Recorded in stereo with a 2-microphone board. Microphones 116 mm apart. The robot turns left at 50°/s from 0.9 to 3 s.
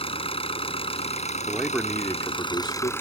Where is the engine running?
125° left; by 3.0 s 20° left.